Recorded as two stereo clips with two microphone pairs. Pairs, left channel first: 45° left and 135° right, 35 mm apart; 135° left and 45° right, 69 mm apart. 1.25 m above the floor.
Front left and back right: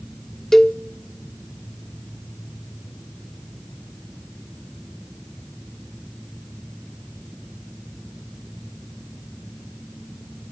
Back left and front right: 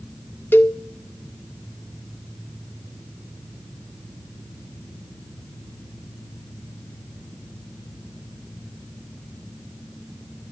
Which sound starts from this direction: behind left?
A cowbell, at 0.5 s.